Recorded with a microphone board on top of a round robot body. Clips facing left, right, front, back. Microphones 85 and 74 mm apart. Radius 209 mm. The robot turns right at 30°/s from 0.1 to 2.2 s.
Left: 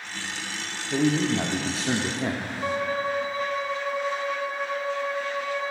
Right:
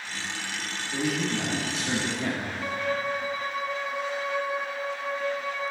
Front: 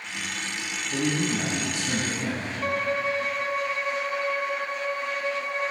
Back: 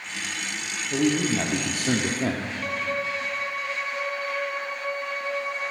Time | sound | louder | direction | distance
0.9 | a man speaking | left 6 dB, back 4 dB | 120° left | 1.2 m
2.6 | a violin | left 3 dB, front 4 dB | 45° left | 1.5 m